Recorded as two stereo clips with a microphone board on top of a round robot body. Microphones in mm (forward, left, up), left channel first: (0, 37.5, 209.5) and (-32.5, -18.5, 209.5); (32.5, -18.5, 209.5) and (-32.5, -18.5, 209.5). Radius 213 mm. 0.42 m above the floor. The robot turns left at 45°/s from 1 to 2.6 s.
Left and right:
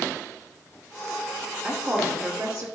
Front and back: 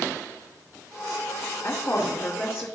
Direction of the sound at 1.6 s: 20° right.